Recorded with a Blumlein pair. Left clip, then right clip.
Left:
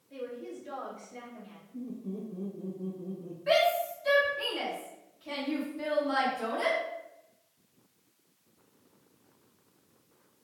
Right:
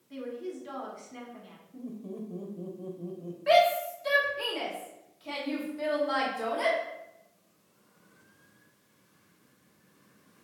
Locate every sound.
0.1 s a woman speaking: 60° right, 1.1 m
1.7 s laughter: 35° right, 0.7 m
3.5 s a shout: 70° right, 0.9 m